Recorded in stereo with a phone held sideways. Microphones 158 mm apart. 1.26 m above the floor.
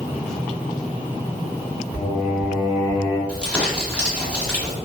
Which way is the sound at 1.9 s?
20° left (ahead or behind).